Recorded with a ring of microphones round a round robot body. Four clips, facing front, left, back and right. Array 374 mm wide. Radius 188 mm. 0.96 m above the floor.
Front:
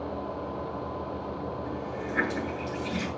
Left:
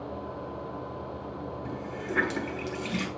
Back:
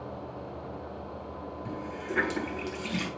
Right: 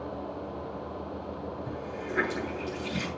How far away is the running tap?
About 6.5 m.